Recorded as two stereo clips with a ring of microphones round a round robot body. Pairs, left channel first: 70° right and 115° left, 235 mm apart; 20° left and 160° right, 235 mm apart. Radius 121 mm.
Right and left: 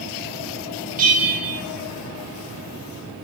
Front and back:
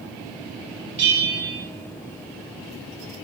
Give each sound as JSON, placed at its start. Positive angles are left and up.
{"t": 1.0, "sound": "a bell", "azimuth_deg": 165, "distance_m": 1.4}